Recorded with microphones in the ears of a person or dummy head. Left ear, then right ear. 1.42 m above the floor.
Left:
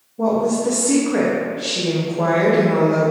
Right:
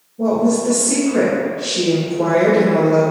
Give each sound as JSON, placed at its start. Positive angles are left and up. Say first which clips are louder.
{"t": 0.2, "sound": "a woman speaking", "louder": "right 1 dB", "side_deg": 40, "distance_m": 0.6}